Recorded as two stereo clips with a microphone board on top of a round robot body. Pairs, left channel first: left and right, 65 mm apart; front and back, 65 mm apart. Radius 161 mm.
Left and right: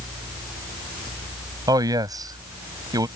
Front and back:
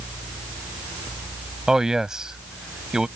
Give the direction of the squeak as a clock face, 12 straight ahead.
I don't hear a squeak.